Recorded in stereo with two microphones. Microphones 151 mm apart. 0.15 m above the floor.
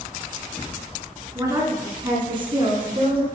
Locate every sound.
1.4 s a woman speaking: 20° right (ahead or behind), 2 m; by 3.3 s 40° right (ahead or behind), 1.8 m